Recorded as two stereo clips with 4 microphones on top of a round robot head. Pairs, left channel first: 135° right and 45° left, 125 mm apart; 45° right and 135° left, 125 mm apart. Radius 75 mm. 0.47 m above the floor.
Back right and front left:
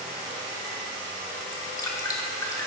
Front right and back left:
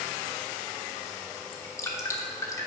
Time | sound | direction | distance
1.5 | dripping | 95° right | 1.4 m